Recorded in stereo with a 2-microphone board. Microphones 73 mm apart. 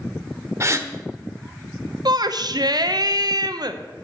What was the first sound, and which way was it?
A gasp, 40° right (ahead or behind).